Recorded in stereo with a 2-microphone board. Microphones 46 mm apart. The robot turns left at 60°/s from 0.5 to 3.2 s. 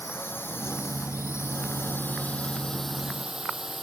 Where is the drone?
55° left (ahead or behind); by 3.8 s 5° right (ahead or behind).